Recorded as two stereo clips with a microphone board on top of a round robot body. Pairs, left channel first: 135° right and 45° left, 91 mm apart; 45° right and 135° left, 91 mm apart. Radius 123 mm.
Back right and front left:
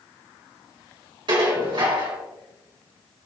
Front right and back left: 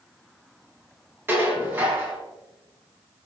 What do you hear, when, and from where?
1.3 s dishes clattering: 70° left, 3 m